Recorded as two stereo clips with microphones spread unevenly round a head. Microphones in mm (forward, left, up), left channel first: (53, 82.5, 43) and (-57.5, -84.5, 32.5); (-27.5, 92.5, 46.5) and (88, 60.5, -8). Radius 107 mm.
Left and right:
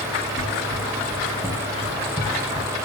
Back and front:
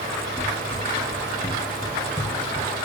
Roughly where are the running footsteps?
Behind left.